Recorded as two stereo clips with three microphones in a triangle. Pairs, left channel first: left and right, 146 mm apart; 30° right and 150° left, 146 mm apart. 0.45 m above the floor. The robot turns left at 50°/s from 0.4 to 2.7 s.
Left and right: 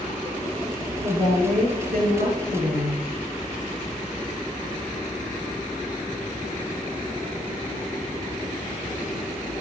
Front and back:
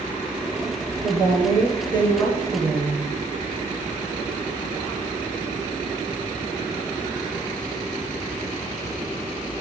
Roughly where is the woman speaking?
Ahead right.